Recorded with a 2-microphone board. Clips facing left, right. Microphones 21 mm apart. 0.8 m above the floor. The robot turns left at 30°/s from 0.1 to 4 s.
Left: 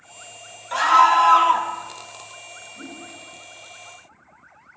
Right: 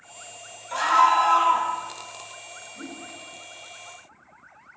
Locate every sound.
0.7 s a scream: 25° left (ahead or behind), 0.6 m; by 1.7 s 45° left (ahead or behind), 0.6 m
2.8 s a whoosh: 70° right (ahead or behind), 1.8 m; by 3.0 s 60° right (ahead or behind), 1.8 m